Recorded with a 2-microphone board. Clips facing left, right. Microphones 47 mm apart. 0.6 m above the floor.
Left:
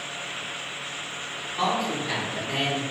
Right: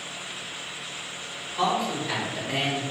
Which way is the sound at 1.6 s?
20° left (ahead or behind).